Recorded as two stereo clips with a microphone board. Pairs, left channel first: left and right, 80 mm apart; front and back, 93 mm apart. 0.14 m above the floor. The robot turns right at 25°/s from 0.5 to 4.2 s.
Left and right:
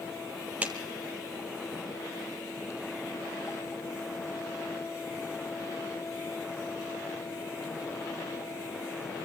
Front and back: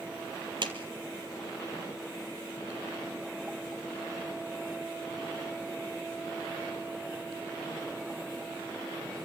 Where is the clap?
160° right, 3.5 m.